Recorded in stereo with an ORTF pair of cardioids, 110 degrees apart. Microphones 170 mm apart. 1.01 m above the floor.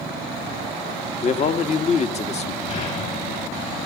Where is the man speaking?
40° left, 1.5 m.